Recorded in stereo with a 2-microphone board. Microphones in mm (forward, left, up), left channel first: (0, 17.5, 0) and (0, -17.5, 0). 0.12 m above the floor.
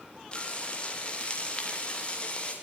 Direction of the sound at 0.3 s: 30° left (ahead or behind).